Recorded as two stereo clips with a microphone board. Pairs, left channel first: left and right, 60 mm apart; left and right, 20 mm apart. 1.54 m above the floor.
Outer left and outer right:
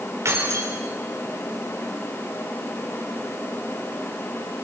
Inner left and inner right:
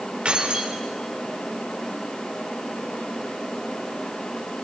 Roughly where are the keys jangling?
Right.